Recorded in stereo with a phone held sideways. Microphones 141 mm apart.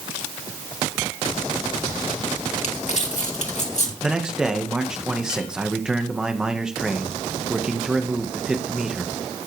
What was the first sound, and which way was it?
Crumpling, 55° left (ahead or behind).